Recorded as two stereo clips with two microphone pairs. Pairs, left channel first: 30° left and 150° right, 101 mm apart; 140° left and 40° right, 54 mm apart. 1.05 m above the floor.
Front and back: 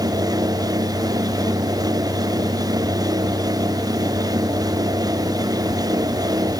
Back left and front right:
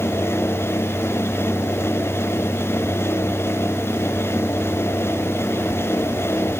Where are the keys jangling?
I don't hear keys jangling.